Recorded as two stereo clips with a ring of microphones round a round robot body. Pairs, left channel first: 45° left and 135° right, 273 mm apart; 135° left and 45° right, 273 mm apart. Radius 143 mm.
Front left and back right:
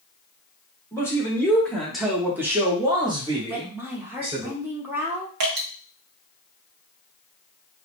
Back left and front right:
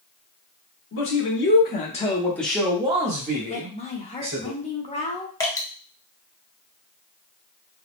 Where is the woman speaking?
155° left, 0.8 m.